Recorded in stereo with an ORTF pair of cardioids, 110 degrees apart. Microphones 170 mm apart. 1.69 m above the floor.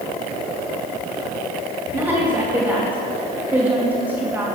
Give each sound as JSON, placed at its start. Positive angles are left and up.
{"t": 1.9, "sound": "a woman speaking", "azimuth_deg": -10, "distance_m": 2.5}